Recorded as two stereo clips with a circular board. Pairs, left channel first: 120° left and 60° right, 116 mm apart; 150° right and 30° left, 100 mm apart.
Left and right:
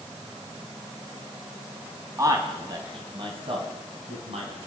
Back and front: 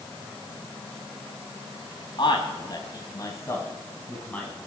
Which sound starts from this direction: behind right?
A man speaking, at 2.2 s.